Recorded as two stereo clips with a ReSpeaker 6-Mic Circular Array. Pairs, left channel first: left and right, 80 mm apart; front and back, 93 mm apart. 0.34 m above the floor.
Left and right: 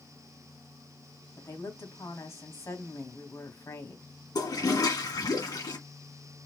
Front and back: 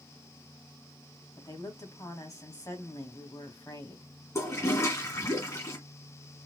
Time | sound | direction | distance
1.4 | a woman speaking | 45° left | 2.5 m
4.3 | a toilet flushing | 55° left | 1.9 m